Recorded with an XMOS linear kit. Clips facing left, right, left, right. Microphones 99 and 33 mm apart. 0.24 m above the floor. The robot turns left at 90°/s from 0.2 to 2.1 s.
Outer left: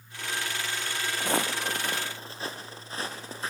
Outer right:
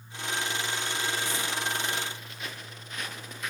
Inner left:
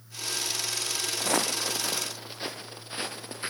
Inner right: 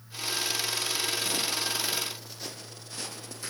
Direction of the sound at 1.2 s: 60° left (ahead or behind).